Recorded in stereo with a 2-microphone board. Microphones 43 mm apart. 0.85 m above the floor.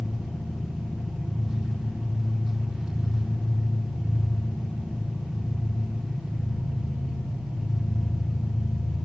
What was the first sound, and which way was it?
An engine running, 5° right (ahead or behind).